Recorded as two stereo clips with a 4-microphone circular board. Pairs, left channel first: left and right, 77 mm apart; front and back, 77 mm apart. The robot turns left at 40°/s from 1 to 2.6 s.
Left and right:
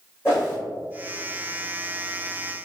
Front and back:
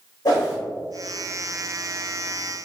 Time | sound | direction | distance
0.2 | a whoosh | 30° left | 2.0 m